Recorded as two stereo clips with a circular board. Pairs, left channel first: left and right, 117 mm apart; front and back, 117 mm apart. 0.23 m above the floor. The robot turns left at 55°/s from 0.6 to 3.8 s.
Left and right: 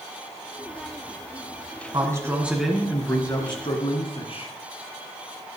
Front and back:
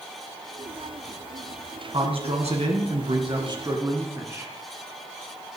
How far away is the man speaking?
About 2.5 m.